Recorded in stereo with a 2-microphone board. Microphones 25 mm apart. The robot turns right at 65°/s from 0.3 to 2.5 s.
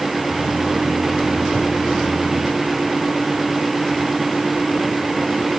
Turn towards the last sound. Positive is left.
No sound to turn to.